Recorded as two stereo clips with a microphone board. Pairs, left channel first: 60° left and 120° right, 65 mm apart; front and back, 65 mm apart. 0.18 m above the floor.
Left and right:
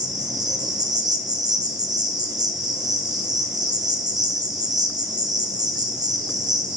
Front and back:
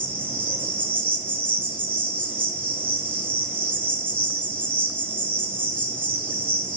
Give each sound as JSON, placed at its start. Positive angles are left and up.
{"t": 0.0, "sound": "an insect", "azimuth_deg": -120, "distance_m": 0.8}